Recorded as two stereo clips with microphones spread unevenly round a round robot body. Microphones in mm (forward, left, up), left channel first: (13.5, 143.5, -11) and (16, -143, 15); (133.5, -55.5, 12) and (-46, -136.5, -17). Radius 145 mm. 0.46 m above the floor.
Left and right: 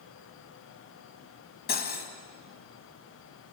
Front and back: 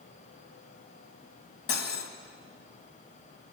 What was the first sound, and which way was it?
Cutlery clinking, 35° left.